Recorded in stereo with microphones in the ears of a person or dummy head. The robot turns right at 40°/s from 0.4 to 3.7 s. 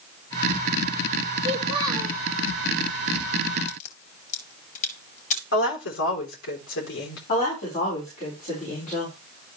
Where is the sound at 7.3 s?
50° left (ahead or behind), 5 m.